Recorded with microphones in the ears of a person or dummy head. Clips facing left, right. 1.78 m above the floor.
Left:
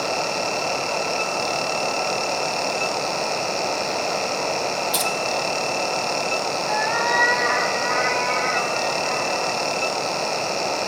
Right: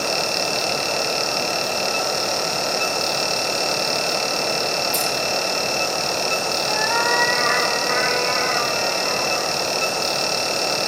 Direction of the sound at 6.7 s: 75° right (ahead or behind).